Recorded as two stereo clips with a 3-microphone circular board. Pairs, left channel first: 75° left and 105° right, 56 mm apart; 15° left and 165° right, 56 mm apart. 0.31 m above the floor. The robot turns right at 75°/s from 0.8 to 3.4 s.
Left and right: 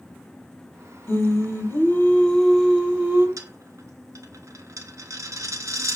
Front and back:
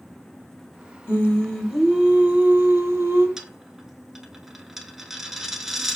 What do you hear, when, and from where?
1.1 s singing: 60° left, 1.6 m; by 3.3 s 135° right, 1.6 m
3.4 s a dropped coin: 85° right, 0.6 m; by 6.0 s 80° right, 0.6 m